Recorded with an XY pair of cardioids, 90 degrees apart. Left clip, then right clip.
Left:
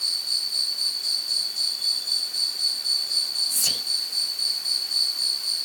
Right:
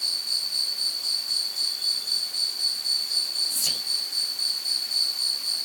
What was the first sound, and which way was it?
An insect, 15° left.